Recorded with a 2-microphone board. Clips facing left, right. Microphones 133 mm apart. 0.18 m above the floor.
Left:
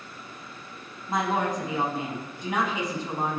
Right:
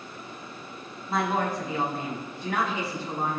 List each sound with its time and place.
1.1 s a woman speaking: 20° left (ahead or behind), 1.0 m